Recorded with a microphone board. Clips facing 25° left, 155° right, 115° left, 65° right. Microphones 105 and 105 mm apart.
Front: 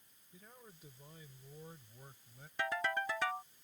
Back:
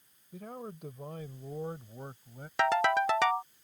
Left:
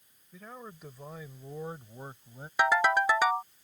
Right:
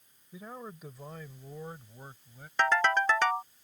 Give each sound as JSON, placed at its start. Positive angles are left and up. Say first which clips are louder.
{"t": 0.3, "sound": "a man speaking", "louder": "back 16 dB, right 2 dB", "azimuth_deg": -140}
{"t": 2.6, "sound": "a ringtone", "louder": "back 11 dB, left 1 dB", "azimuth_deg": -165}